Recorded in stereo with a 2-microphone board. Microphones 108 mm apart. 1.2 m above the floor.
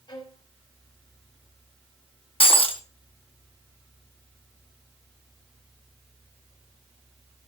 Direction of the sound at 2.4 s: 60° left (ahead or behind).